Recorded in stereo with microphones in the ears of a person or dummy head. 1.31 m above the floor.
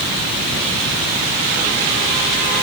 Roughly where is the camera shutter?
I don't hear a camera shutter.